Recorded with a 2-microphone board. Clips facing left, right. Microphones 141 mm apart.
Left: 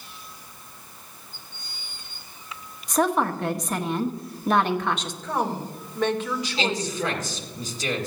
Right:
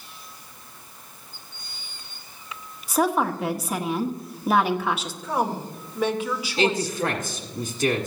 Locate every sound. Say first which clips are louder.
2.9 s a woman speaking: even; 5° right (ahead or behind), 1.0 m
5.2 s a woman speaking: right 1 dB; 10° right (ahead or behind), 1.8 m
6.6 s a man speaking: right 6 dB; 50° right (ahead or behind), 1.6 m